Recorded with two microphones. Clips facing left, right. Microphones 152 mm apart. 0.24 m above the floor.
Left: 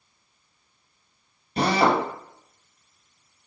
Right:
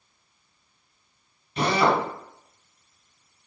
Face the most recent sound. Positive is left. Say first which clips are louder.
# left 1 dB
turn(degrees=35)  # may be behind; listen again after turning